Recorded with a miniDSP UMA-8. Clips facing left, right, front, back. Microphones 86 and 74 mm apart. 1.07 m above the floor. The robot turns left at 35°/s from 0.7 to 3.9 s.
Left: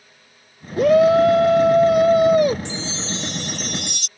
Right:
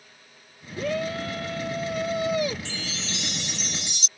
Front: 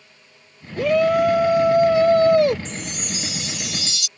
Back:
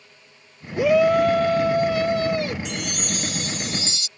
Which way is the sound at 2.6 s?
160° left.